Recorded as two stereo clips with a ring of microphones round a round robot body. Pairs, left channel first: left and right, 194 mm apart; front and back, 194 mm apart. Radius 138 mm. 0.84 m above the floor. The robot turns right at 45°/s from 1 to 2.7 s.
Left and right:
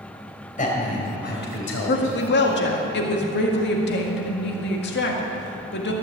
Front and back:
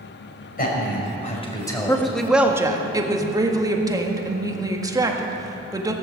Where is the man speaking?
40° left, 4 m; by 2.2 s 95° left, 4 m.